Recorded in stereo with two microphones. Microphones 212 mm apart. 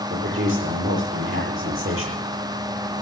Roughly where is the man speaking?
Right.